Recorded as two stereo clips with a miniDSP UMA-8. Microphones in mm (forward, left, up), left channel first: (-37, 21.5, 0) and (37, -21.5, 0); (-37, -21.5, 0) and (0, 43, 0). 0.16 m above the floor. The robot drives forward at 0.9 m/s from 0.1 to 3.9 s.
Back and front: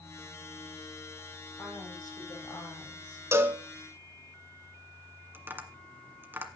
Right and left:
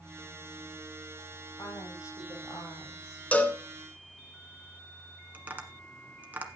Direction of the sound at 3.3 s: 60° right.